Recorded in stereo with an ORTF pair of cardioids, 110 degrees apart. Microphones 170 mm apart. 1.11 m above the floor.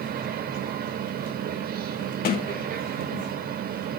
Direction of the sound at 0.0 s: 60° right.